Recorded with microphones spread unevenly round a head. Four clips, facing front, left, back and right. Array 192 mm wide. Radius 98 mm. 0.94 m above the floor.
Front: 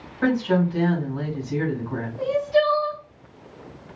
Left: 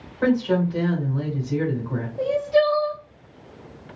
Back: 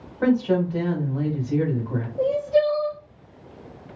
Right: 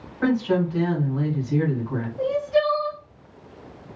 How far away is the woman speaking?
About 1.7 m.